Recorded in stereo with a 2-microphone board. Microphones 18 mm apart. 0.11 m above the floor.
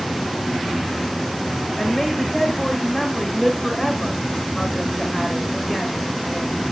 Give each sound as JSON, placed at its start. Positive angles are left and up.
{"t": 1.8, "sound": "a woman speaking", "side_deg": 5, "distance_m": 8.5}